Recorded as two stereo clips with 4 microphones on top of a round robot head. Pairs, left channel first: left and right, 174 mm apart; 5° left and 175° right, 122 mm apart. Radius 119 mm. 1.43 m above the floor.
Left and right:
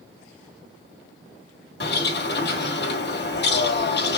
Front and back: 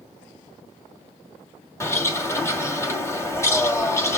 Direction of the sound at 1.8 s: 75° left.